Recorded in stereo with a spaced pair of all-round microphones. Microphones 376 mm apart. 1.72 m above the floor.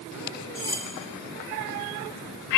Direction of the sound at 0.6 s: 35° right (ahead or behind).